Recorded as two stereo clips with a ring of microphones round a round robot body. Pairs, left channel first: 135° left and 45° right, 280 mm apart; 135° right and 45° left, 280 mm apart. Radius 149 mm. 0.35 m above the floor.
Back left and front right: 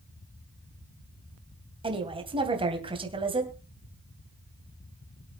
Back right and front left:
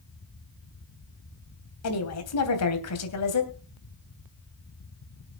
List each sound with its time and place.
1.8 s a woman speaking: 115° right, 3 m